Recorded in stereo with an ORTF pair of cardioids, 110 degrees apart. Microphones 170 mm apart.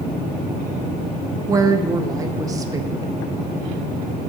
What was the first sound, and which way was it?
A woman speaking, 20° right.